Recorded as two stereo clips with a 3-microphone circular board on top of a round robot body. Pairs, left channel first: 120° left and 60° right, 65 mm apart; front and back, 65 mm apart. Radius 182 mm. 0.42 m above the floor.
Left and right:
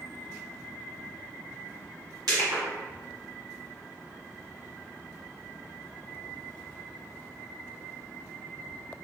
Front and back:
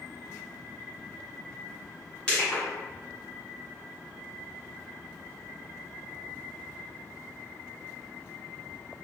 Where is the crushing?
75° right, 1.7 m.